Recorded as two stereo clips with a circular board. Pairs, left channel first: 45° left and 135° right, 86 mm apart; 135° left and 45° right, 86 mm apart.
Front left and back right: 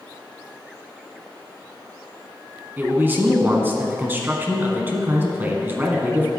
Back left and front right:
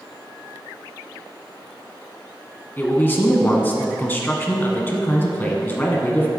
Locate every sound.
2.8 s a man speaking: straight behind, 1.2 m